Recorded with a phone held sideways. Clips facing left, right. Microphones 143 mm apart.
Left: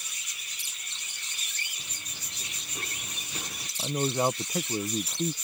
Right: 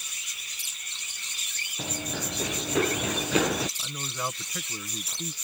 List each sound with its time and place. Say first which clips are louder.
1.8 s running footsteps: right 16 dB; 80° right
3.8 s a man speaking: left 9 dB; 40° left (ahead or behind)